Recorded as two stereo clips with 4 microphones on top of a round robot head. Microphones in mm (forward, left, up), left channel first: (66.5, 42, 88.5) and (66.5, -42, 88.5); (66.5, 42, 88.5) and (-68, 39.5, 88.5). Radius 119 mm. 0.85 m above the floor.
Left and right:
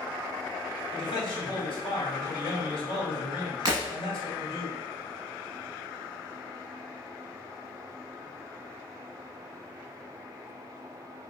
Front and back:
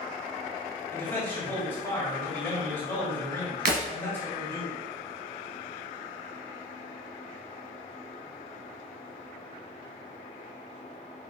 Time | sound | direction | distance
0.9 | a man speaking | 70° left | 3 m
3.6 | breaking glass | 160° right | 0.9 m